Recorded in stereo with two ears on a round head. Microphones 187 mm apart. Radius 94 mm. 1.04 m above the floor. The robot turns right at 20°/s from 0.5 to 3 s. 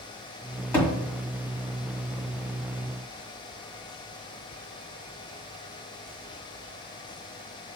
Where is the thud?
10° left (ahead or behind), 1.6 m; by 0.9 s 5° left (ahead or behind), 1.6 m.